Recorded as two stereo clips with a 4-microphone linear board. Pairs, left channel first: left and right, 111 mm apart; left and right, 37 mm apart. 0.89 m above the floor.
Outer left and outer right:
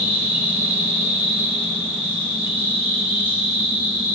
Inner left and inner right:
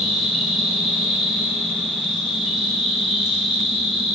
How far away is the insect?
About 2.0 m.